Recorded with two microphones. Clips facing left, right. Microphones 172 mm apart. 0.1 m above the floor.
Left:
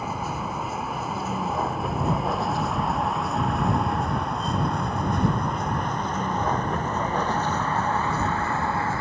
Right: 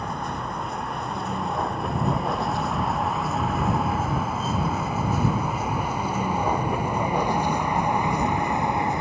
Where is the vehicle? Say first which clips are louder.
Left 1 dB; 5° left (ahead or behind); by 9.0 s 20° right (ahead or behind).